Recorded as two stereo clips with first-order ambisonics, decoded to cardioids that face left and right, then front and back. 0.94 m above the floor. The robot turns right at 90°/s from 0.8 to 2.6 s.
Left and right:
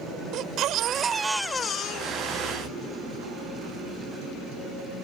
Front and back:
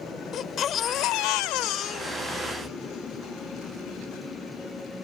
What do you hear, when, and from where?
0.3 s a baby crying: 50° right; by 2.7 s 115° left